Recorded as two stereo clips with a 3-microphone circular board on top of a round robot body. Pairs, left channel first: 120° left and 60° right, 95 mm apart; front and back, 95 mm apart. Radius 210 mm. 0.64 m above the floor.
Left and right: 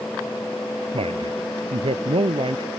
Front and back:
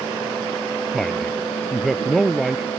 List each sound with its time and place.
0.9 s a man speaking: 85° right; by 2.7 s 90° right